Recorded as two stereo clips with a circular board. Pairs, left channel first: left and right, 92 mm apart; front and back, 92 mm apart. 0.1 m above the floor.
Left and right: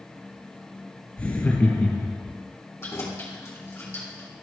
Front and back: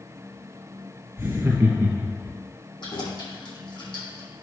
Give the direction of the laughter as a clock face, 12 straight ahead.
7 o'clock.